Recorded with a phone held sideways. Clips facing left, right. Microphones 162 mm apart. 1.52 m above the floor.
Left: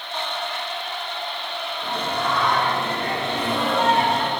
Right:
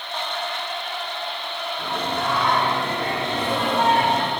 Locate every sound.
1.8 s singing: 70° right (ahead or behind), 6 m